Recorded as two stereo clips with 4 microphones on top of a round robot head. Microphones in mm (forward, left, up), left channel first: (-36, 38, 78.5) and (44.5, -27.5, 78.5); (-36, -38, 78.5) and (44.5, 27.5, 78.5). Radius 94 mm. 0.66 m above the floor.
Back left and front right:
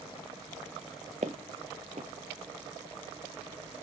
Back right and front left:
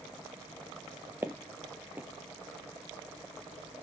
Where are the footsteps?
30° right, 0.7 m.